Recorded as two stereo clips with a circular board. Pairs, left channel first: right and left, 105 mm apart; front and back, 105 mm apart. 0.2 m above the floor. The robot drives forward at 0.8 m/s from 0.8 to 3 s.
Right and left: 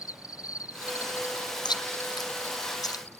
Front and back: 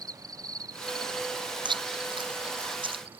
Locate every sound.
0.0 s an insect: 140° right; by 3.2 s 165° right
1.6 s chewing: 140° right; by 3.2 s 145° right